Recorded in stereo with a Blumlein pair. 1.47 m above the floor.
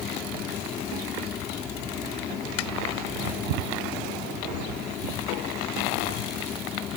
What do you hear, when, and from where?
0.0 s a fan: 25° left